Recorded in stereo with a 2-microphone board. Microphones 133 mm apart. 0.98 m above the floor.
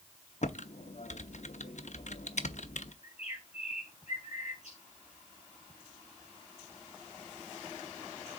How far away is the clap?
I don't hear a clap.